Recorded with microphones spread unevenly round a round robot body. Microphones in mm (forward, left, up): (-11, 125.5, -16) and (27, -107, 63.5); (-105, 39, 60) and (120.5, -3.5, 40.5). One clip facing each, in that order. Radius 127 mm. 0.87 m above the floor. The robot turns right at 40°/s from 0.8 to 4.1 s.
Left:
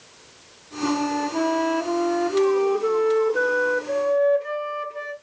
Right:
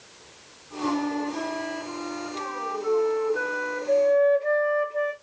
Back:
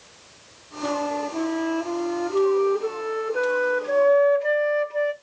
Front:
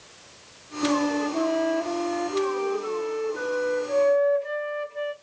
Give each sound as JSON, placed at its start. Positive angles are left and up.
{"t": 0.8, "sound": "a flute", "azimuth_deg": 50, "distance_m": 0.8}